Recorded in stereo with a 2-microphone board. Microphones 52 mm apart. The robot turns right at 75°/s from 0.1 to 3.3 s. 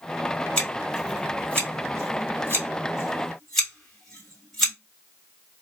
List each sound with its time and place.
0.6 s scissors: 20° left (ahead or behind), 2.5 m; by 4.7 s 5° left (ahead or behind), 2.5 m